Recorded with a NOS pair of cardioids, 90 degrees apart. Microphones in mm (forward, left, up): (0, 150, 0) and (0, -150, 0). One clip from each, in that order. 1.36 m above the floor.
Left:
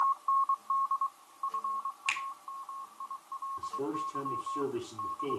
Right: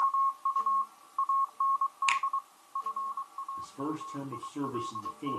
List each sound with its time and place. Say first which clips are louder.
2.1 s a finger snap: right 3 dB; 40° right, 1.7 m
3.6 s a man speaking: left 4 dB; 15° right, 3.5 m